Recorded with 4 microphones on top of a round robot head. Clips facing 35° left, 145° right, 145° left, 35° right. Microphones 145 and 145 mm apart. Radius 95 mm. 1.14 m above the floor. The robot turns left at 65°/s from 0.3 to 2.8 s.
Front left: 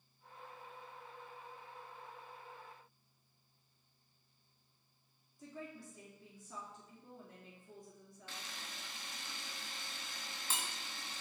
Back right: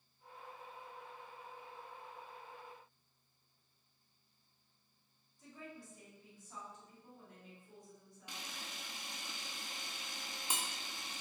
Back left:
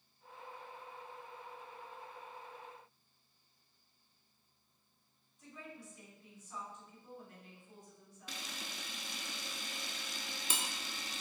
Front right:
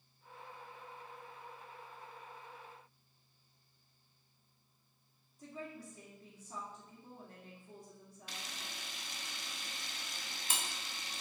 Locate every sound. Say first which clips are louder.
5.4 s a woman speaking: front left 3 dB, front right 5 dB; 25° left, 2 m
8.3 s a camera shutter: back right 1 dB, back left 2 dB; 140° left, 0.8 m